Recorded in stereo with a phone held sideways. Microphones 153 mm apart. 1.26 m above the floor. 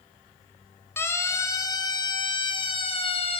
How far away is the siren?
About 2.5 m.